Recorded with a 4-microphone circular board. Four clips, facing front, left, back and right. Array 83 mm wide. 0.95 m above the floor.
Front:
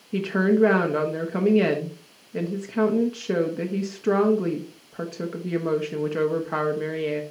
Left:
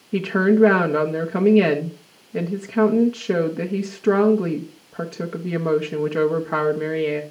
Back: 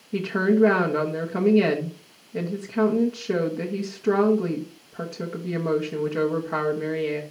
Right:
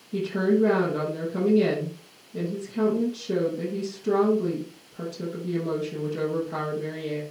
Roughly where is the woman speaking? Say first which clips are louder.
Left 5 dB, even; left.